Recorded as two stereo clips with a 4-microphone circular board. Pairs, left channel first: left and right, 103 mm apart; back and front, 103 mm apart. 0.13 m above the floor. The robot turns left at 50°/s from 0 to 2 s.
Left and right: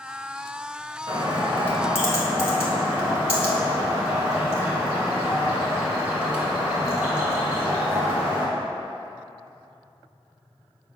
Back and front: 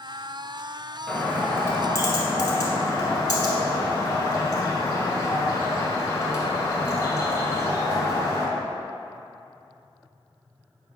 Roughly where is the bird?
Behind right.